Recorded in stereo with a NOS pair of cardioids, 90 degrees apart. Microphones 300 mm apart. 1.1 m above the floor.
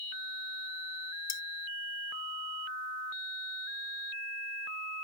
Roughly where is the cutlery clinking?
Ahead left.